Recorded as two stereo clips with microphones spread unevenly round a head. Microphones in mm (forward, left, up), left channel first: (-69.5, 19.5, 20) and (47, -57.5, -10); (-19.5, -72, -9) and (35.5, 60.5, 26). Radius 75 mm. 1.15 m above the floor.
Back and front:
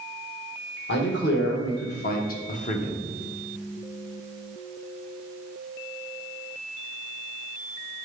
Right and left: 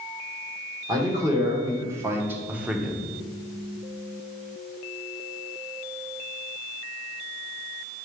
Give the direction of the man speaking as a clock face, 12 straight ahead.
7 o'clock.